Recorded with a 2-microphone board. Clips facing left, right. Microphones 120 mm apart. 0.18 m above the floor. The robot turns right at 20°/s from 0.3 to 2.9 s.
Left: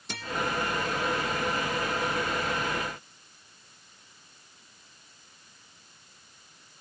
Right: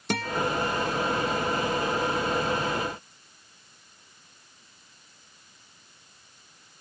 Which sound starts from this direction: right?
A guitar, at 0.1 s.